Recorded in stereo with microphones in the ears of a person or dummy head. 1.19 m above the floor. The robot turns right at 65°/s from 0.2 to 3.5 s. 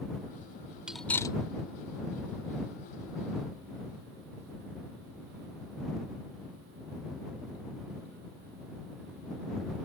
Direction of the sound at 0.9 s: 5° right (ahead or behind).